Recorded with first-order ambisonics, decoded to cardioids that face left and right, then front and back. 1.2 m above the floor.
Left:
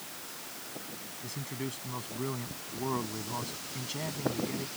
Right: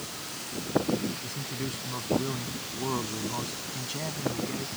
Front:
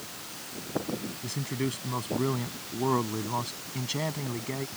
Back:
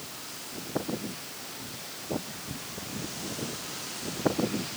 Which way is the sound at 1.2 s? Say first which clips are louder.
Right 4 dB, front 7 dB; 5° right.